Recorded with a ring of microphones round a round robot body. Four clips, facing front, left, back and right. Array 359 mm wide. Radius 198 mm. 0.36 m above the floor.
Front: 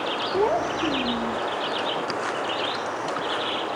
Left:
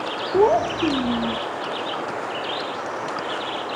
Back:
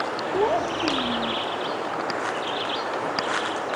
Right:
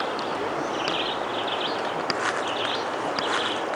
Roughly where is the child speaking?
Left.